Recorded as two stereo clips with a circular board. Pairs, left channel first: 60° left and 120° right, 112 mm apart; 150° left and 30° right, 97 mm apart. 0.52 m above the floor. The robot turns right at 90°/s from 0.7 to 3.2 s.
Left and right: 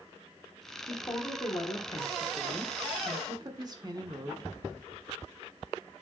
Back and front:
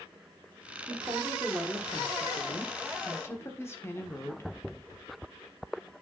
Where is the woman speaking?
5° right, 1.2 m; by 4.5 s 155° right, 1.2 m.